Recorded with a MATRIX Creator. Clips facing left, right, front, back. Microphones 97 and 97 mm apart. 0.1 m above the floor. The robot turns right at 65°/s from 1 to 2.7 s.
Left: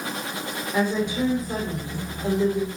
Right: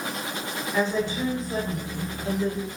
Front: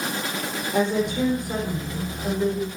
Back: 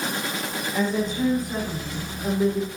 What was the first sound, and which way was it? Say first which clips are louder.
A woman speaking: left 2 dB, front 3 dB; 10° left.